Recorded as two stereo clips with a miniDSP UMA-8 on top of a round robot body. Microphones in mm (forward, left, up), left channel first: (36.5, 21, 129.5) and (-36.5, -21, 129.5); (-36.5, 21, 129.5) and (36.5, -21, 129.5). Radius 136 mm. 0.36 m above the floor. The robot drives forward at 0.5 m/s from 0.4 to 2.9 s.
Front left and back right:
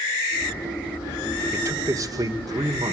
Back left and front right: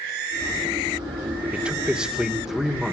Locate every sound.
1.5 s a man speaking: 100° right, 2.0 m; by 2.9 s 125° right, 2 m